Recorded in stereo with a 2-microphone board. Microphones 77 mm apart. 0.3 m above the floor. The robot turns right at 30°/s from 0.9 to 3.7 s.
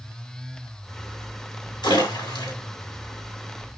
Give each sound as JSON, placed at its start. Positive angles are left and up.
{"t": 1.8, "sound": "a splash", "side_deg": 70, "distance_m": 3.5}